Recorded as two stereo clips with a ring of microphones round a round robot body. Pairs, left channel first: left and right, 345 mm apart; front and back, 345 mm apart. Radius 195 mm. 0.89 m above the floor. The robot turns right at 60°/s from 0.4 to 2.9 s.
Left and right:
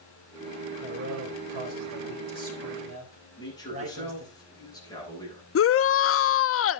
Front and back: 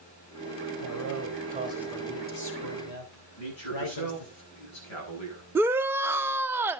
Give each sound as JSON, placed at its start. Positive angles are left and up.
{"t": 0.8, "sound": "a man speaking", "azimuth_deg": -155, "distance_m": 4.0}
{"t": 3.4, "sound": "a man speaking", "azimuth_deg": 10, "distance_m": 8.0}
{"t": 5.5, "sound": "a shout", "azimuth_deg": 100, "distance_m": 0.5}